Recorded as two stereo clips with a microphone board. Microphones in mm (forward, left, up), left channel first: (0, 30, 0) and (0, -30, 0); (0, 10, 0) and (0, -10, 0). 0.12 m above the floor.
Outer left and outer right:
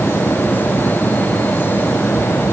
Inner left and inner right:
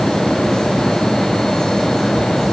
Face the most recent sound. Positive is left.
No sound to turn to.